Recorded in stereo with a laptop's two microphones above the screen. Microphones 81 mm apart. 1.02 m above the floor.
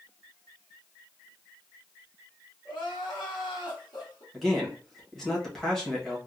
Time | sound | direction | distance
2.6 | crying | 70° left (ahead or behind) | 1.0 m
4.3 | a man speaking | 5° left (ahead or behind) | 0.9 m